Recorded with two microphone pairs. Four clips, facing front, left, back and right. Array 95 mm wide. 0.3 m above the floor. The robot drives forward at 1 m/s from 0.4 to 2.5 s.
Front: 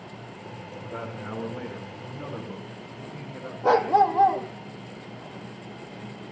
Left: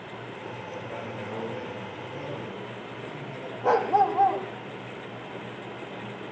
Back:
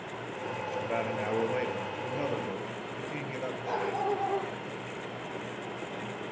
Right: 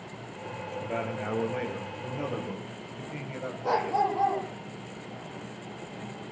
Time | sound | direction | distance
0.8 | a man speaking | 145° right | 5.5 m
3.6 | a dog barking | 35° left | 4.5 m